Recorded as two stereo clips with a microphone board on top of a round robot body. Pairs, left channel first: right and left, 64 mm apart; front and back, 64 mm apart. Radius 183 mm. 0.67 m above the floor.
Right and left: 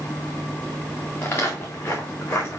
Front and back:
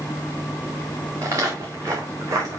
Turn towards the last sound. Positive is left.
turn(degrees=-140)